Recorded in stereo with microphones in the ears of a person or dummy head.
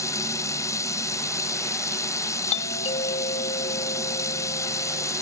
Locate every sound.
0.0 s running water: 20° left (ahead or behind)
2.5 s a doorbell: 35° left (ahead or behind)